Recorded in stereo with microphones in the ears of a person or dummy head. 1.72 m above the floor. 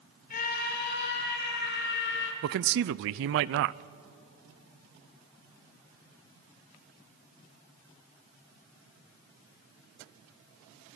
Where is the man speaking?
60° right (ahead or behind), 0.5 m.